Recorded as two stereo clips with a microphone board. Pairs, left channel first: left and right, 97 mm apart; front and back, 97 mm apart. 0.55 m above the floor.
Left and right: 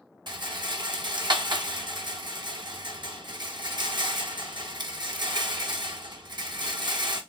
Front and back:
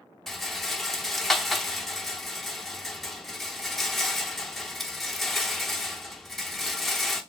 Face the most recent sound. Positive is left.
turn(degrees=-85)